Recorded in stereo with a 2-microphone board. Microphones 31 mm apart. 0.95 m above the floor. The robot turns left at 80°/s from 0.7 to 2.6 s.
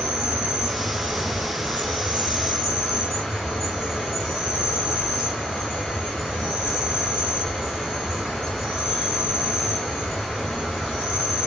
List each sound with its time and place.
0.0 s an insect: 25° right, 3.5 m; by 11.5 s straight behind, 3.5 m